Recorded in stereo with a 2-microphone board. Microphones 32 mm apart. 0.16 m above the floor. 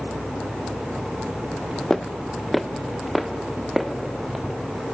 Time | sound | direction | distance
1.9 | footsteps | 10° left (ahead or behind) | 0.6 m